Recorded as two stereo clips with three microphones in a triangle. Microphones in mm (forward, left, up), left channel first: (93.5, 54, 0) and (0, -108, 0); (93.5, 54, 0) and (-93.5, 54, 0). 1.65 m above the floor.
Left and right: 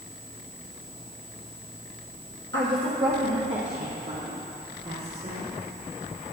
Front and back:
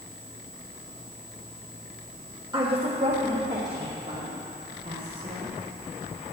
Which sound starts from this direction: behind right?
A woman speaking, at 2.5 s.